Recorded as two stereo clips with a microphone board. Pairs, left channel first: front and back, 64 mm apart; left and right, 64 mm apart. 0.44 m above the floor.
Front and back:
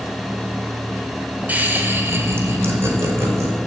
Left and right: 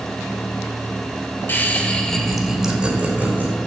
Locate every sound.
1.5 s laughter: 130° left, 1.8 m; by 3.5 s 145° right, 2.5 m